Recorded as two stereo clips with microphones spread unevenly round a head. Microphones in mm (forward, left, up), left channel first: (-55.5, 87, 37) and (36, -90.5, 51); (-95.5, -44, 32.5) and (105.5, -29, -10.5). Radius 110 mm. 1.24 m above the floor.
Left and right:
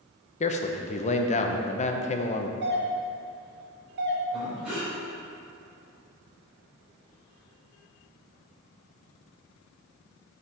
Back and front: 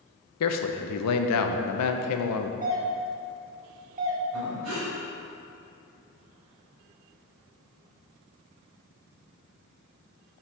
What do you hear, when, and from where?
0.4 s a man speaking: 175° left, 0.6 m
2.6 s a doorbell: 35° right, 1.1 m
4.3 s breathing: 20° left, 2.5 m